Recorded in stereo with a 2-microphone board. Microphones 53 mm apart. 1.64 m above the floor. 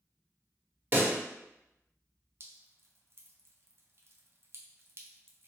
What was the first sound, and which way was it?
A pop, 35° right (ahead or behind).